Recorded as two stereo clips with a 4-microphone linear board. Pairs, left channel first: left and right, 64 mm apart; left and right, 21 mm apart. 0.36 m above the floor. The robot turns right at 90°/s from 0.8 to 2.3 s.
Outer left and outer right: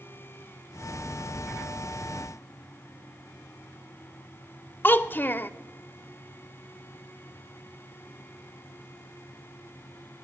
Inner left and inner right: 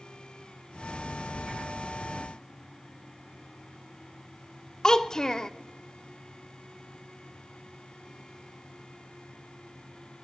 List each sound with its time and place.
4.8 s a child speaking: 30° left (ahead or behind), 0.6 m